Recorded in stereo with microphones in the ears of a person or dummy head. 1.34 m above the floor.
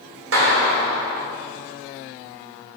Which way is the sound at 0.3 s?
80° right.